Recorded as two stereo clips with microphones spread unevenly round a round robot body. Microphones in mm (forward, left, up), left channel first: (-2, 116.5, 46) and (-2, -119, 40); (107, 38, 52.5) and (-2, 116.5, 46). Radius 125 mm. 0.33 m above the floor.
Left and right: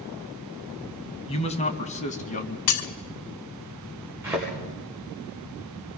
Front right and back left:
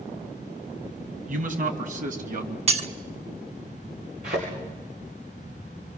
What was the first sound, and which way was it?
A man speaking, 155° left.